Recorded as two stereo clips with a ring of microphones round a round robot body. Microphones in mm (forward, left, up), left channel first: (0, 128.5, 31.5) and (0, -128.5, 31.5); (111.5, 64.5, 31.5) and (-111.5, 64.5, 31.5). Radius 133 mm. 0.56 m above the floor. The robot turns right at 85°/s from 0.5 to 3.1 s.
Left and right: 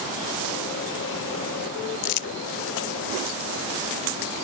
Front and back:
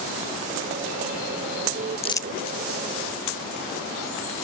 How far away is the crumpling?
About 0.6 m.